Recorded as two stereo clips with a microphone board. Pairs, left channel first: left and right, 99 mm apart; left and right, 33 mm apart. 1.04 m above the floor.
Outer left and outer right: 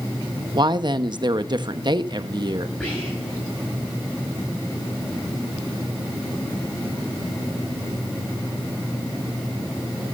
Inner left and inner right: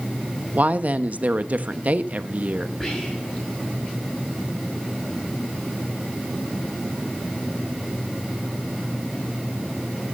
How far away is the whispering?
About 7.5 m.